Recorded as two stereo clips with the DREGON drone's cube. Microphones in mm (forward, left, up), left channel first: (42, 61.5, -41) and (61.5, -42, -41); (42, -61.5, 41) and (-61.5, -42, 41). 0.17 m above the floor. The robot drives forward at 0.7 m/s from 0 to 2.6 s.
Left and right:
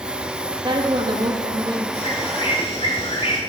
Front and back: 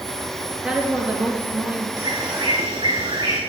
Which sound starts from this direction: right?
A woman speaking, at 0.6 s.